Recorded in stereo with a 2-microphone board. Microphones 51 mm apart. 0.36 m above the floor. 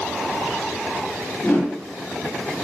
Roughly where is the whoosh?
Left.